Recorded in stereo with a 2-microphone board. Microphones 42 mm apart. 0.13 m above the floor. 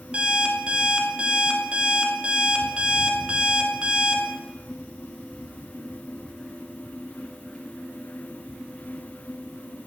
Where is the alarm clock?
25° right (ahead or behind), 0.8 m.